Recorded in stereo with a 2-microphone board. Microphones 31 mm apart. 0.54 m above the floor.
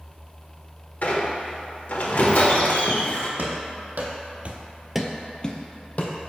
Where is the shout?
No shout in this recording.